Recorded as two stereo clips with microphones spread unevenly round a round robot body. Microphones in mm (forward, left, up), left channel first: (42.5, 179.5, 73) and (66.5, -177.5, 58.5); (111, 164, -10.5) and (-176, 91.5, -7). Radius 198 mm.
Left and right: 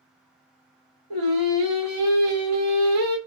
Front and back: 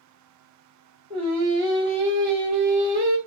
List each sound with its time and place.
1.1 s singing: 95° right, 1.5 m